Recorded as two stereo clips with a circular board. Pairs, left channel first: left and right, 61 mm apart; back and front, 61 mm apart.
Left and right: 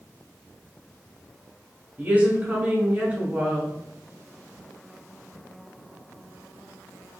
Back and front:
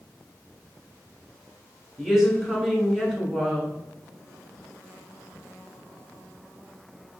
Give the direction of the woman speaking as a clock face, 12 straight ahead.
3 o'clock.